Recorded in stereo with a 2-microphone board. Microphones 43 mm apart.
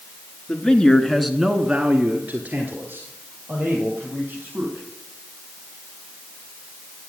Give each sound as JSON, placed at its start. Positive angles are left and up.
{"t": 0.5, "sound": "a man speaking", "side_deg": 25, "distance_m": 1.5}